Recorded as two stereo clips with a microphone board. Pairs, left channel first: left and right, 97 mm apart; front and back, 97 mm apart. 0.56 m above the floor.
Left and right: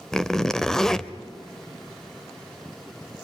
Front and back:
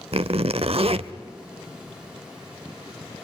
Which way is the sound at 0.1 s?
175° left.